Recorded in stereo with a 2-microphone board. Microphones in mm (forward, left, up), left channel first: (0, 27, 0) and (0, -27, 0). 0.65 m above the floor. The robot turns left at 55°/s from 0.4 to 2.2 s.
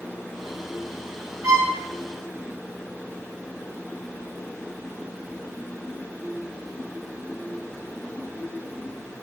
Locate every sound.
1.4 s a violin: 80° right, 4 m